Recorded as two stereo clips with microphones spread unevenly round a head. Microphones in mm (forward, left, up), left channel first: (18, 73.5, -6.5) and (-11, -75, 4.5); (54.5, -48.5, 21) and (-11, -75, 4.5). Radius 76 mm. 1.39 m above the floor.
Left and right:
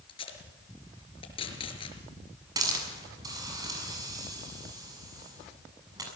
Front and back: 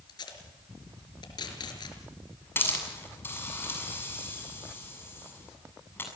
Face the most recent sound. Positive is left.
turn(degrees=-35)